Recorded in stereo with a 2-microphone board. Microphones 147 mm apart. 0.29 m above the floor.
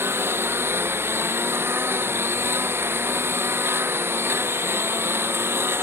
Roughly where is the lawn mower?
Centre.